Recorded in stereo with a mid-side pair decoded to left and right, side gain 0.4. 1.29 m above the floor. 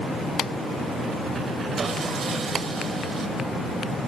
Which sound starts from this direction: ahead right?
Sawing, at 1.8 s.